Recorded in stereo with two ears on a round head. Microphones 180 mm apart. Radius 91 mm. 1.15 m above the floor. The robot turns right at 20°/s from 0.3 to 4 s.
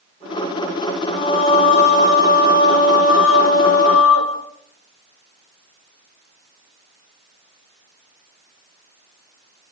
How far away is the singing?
About 3.5 m.